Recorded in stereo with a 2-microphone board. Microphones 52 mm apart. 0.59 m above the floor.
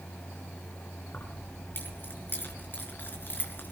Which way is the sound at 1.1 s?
40° left (ahead or behind).